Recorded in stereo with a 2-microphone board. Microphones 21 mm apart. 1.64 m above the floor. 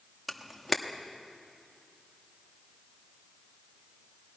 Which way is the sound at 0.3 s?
5° right (ahead or behind).